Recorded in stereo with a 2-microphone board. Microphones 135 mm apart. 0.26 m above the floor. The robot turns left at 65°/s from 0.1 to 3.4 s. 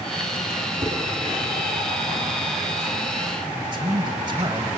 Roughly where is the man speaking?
Right.